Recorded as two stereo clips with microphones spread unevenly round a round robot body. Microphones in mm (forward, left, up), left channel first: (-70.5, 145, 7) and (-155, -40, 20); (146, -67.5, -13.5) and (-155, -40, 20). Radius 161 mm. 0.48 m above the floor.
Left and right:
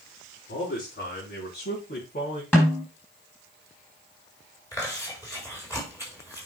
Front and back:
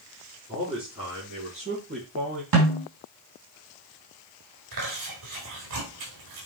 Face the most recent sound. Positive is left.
turn(degrees=140)